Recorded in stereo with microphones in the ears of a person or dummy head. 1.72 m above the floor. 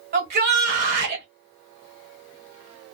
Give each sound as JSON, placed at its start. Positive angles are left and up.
{"t": 0.1, "sound": "a shout", "side_deg": -50, "distance_m": 1.3}